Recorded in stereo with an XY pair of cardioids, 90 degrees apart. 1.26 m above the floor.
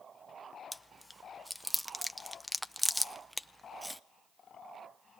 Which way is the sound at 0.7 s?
Straight ahead.